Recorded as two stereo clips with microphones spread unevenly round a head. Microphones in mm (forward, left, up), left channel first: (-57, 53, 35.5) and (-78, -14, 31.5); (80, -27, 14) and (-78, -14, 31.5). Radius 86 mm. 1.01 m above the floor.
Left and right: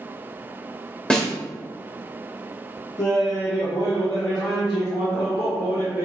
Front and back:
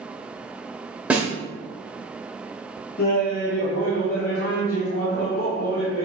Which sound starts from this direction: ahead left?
Laughter, at 3.0 s.